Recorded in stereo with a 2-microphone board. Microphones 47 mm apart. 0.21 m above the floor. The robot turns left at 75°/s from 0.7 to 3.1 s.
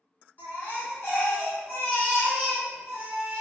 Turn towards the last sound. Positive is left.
turn(degrees=-45)